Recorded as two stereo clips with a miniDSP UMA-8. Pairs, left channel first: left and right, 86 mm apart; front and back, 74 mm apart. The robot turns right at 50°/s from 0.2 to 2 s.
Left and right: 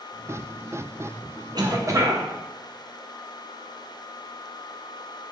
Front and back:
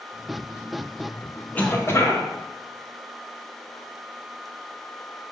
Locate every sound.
1.6 s a cough: 65° right, 0.7 m; by 2.2 s 45° right, 0.7 m